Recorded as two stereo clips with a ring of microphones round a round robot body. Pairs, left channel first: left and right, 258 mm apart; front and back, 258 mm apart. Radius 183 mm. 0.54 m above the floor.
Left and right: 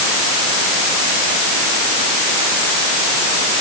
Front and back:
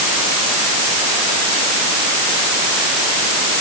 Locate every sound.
Only background noise.